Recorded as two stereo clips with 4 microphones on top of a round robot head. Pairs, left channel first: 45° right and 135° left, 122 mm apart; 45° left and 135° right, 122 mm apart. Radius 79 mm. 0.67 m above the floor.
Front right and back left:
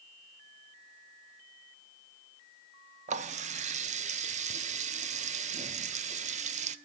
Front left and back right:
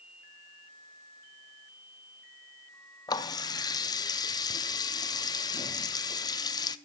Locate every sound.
3.1 s a running tap: 105° left, 0.8 m